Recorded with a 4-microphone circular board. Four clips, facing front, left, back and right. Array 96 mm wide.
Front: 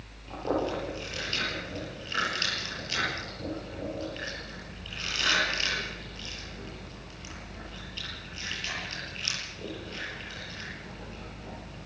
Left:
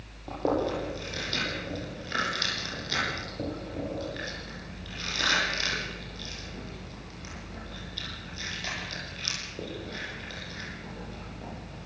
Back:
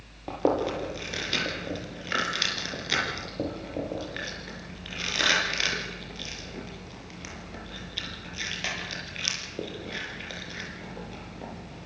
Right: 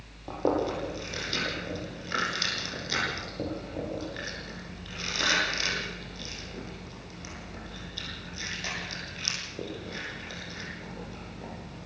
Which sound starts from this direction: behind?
Chewing, at 0.3 s.